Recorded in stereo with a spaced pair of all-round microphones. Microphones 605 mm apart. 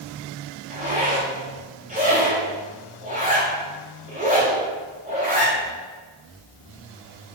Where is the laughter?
No laughter in this recording.